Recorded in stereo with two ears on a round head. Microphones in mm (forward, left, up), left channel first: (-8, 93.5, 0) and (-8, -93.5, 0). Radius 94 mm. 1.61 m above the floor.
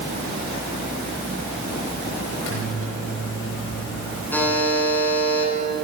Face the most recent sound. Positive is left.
turn(degrees=10)  # may be behind; listen again after turning